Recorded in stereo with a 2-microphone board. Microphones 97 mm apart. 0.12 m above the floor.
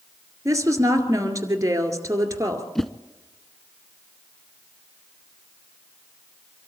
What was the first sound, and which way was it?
A woman speaking, 35° right (ahead or behind).